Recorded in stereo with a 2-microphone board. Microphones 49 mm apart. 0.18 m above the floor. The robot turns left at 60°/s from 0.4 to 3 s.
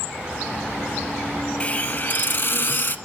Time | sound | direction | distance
1.6 | a hiss | 145° left | 0.7 m